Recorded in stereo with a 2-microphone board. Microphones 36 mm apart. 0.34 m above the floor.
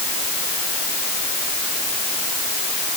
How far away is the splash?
No splash in this recording.